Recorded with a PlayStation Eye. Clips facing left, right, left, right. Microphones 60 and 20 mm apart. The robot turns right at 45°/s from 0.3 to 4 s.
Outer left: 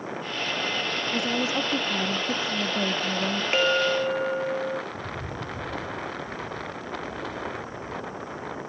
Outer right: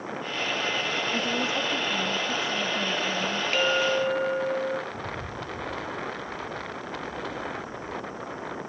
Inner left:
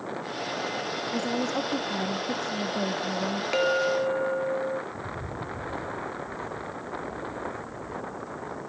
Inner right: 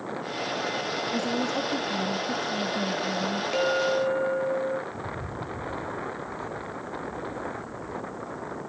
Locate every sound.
1.1 s a woman speaking: 15° left, 1.1 m; by 3.4 s 120° left, 1.1 m
3.5 s a clink: 20° left (ahead or behind), 0.7 m; by 4.8 s centre (ahead or behind), 0.7 m
4.9 s footsteps: 20° right (ahead or behind), 0.6 m; by 8.6 s 80° left, 4.5 m